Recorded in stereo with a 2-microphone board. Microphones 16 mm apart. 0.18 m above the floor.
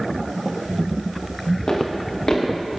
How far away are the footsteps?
About 3.5 m.